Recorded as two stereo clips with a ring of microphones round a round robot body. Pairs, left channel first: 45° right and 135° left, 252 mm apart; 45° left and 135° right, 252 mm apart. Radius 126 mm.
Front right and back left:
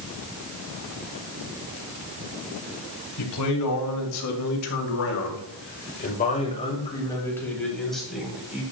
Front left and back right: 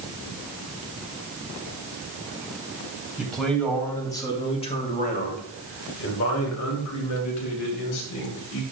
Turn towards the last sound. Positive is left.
turn(degrees=50)